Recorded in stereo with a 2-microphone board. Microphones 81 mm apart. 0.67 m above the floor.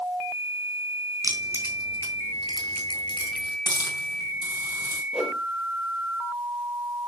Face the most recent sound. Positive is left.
turn(degrees=-5)  # may be behind; listen again after turning